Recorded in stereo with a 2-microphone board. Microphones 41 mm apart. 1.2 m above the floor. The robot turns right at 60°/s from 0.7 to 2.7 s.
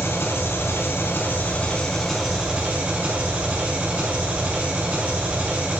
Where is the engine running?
95° left, 4 m; by 5.8 s 145° right, 4 m.